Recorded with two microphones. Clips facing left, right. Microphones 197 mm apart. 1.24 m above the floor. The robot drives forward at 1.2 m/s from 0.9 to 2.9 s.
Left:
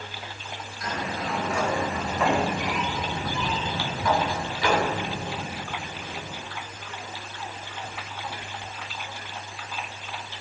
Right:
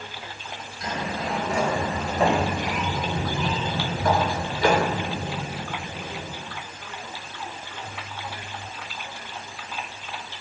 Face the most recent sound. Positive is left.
turn(degrees=-45)  # may be behind; listen again after turning